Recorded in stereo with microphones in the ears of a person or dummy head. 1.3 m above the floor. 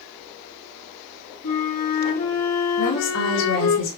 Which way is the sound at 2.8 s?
70° left (ahead or behind).